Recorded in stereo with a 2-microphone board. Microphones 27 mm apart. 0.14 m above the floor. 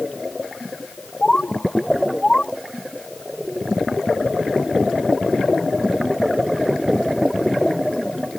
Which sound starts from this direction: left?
A bird, at 1.2 s.